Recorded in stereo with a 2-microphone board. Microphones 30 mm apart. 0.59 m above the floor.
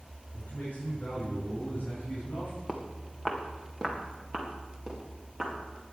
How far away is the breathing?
No breathing in this recording.